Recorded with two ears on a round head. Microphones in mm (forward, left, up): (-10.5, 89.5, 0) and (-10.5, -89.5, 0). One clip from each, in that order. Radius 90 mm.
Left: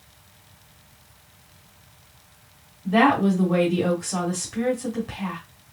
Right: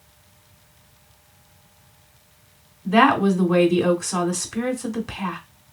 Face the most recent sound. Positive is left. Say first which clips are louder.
# right 2 dB
turn(degrees=-35)  # may be behind; listen again after turning